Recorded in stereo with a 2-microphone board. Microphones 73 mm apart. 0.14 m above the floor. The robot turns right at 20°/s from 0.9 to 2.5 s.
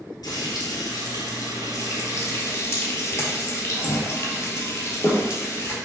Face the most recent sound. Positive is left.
turn(degrees=140)